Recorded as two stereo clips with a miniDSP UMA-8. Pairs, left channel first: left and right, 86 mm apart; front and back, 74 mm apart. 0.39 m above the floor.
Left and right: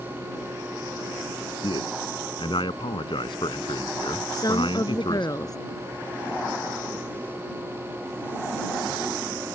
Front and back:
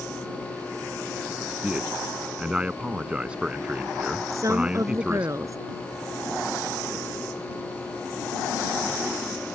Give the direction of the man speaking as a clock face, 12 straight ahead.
9 o'clock.